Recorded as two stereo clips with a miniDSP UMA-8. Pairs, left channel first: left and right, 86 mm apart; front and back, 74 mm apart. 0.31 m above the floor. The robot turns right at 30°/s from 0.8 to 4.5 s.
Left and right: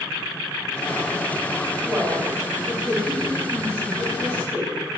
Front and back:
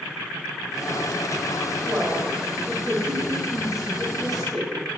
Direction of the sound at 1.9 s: 170° right.